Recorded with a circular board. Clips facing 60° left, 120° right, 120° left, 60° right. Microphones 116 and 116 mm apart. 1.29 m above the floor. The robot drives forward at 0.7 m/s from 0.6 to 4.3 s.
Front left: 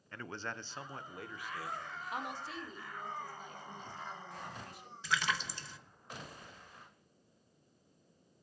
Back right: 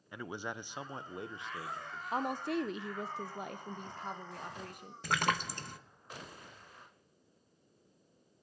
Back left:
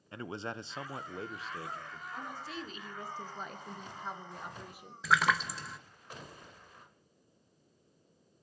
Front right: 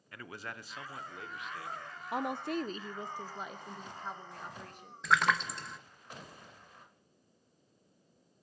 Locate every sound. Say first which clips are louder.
0.1 s a man speaking: back right 2 dB, back left 6 dB; 170° left, 0.6 m; by 2.0 s 175° left, 1.4 m
2.1 s a woman speaking: back right 9 dB, front right 10 dB; 65° right, 0.6 m; by 4.9 s 160° right, 1.4 m
5.0 s a splash: back right 3 dB, even; 150° right, 0.7 m